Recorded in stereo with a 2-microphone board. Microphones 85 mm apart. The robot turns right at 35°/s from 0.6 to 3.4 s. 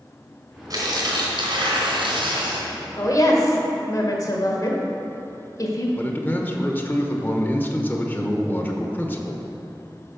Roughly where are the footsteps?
No footsteps in this recording.